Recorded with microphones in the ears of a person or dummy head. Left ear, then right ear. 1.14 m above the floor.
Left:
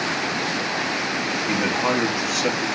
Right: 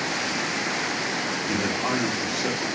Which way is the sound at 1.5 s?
70° left (ahead or behind).